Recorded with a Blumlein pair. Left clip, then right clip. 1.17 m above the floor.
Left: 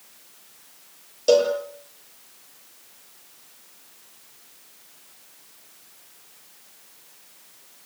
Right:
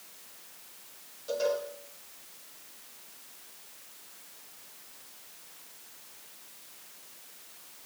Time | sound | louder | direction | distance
1.3 | a cowbell | left 12 dB | 45° left | 8.5 m